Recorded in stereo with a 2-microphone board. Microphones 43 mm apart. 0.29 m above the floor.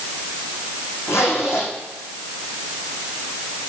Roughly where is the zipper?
Left.